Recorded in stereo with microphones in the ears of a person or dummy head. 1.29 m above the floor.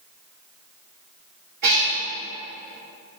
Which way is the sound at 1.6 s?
60° right (ahead or behind).